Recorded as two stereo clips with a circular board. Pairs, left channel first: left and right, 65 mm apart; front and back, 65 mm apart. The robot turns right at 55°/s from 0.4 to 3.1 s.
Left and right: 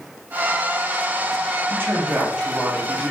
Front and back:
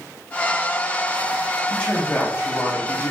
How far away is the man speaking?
About 1.3 m.